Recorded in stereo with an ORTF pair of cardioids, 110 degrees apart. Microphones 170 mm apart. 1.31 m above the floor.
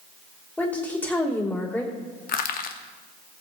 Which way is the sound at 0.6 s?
10° left.